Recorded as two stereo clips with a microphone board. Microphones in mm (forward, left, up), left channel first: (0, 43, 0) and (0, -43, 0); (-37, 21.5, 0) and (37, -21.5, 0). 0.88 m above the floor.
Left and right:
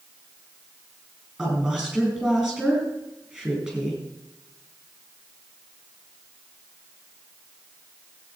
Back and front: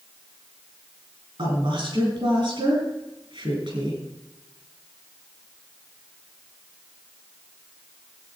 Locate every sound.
1.4 s a woman speaking: 10° right, 6.5 m